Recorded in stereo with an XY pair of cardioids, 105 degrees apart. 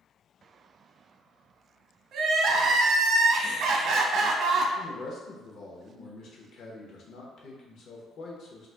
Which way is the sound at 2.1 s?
70° right.